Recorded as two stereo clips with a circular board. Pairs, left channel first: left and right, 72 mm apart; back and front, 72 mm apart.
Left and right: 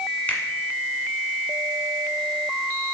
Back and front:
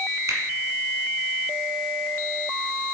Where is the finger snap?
30° left, 1.4 m.